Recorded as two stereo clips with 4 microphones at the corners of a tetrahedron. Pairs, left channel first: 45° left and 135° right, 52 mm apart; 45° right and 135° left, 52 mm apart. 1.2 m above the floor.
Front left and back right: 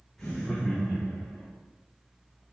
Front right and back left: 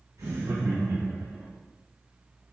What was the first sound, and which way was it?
Laughter, 125° left.